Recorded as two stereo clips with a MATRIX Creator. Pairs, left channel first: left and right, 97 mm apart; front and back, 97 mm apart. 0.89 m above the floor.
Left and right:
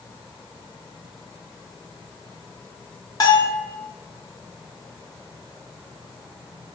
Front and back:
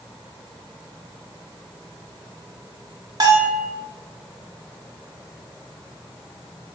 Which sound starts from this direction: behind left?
A bell, at 3.2 s.